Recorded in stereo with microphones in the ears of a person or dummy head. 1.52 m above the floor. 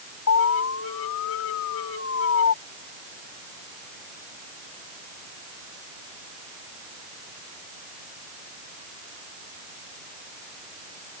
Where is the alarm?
70° left (ahead or behind).